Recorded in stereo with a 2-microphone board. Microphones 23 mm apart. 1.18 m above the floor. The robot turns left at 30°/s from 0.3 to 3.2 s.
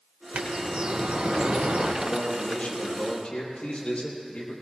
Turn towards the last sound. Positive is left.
turn(degrees=60)